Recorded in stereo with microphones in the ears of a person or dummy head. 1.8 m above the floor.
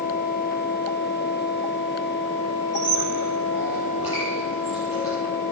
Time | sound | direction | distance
2.7 | a squeak | 30° left (ahead or behind) | 9.5 m